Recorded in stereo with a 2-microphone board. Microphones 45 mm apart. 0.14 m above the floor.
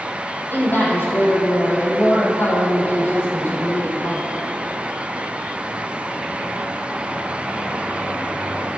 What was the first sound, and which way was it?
A woman speaking, 50° left (ahead or behind).